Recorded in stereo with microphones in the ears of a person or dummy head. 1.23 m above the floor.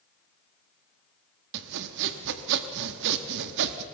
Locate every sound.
1.5 s sawing: 60° right (ahead or behind), 1.3 m